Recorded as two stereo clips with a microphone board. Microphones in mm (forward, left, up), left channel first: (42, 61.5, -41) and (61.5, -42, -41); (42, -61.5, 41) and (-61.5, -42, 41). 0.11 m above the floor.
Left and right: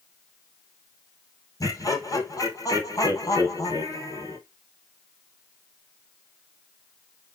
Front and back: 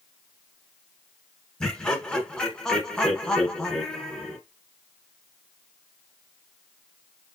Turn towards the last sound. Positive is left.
turn(degrees=70)